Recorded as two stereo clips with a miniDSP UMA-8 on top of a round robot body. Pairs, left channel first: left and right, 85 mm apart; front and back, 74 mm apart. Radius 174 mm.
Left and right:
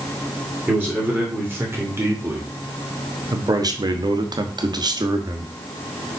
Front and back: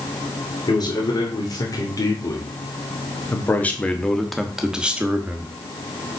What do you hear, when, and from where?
0.7 s a man speaking: 20° right, 3 m; by 5.5 s 120° right, 1.8 m